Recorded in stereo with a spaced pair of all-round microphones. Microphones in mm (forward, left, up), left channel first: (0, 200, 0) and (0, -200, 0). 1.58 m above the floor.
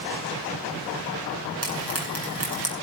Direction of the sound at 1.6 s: 35° right (ahead or behind).